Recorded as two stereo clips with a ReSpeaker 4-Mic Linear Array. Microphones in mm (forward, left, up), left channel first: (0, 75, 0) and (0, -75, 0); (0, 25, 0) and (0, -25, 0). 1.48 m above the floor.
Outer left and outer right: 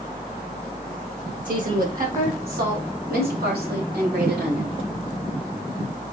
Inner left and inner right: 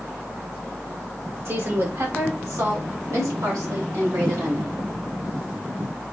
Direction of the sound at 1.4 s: 60° right (ahead or behind).